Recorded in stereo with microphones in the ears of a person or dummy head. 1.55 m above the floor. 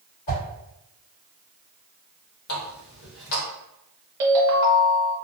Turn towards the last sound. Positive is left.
turn(degrees=-20)  # may be behind; listen again after turning